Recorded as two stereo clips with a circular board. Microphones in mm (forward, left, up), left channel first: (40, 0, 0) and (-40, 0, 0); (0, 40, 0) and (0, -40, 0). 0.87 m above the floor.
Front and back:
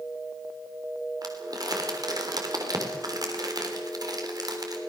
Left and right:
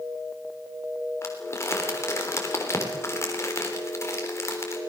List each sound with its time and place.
1.2 s crumpling: 145° left, 3.5 m